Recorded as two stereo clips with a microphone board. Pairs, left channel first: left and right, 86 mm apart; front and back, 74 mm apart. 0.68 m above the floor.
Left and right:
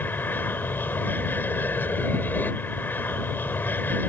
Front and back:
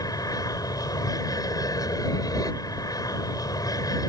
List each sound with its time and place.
0.0 s an aircraft: 25° left